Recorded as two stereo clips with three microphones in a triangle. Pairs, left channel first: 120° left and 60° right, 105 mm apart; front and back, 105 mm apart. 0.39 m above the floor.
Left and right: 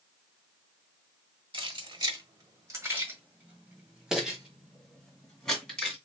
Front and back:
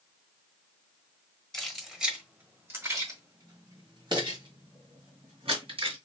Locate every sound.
1.5 s keys jangling: 85° right, 1.3 m; by 6.0 s 160° right, 3 m